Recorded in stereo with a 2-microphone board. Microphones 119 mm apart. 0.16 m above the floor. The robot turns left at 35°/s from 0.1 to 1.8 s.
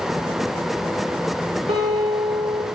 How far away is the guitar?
About 10 m.